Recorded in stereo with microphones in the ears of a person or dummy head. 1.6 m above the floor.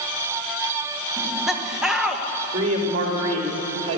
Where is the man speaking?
30° right (ahead or behind), 4 m.